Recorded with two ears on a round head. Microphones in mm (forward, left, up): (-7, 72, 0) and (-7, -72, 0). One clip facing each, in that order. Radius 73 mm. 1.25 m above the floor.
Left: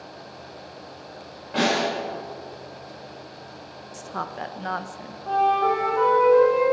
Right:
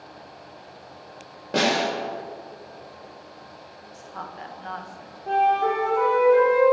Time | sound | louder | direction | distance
1.5 | a snare drum | even | 55° right (ahead or behind) | 6 m
3.9 | a woman speaking | left 6 dB | 60° left (ahead or behind) | 0.8 m
5.3 | a flute | even | 20° right (ahead or behind) | 3.5 m